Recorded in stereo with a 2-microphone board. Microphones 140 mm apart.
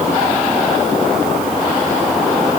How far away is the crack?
I don't hear a crack.